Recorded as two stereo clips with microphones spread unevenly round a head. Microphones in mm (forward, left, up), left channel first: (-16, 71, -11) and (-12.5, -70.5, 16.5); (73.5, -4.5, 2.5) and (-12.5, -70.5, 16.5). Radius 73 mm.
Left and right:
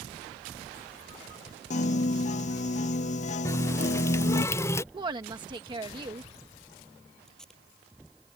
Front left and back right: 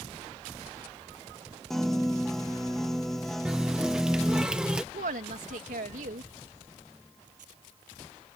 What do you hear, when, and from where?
1.7 s a piano: 130° left
3.5 s a running tap: 160° left
4.9 s a woman speaking: 150° right
7.3 s tape being pulled: straight behind